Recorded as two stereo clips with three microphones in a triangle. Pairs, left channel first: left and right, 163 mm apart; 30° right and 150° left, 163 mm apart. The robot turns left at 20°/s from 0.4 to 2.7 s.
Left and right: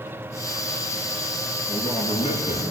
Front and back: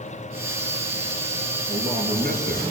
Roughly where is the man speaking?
Behind left.